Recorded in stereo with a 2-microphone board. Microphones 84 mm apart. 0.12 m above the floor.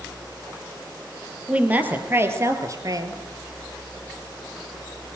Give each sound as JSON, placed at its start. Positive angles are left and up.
{"t": 1.5, "sound": "a woman speaking", "side_deg": -15, "distance_m": 3.0}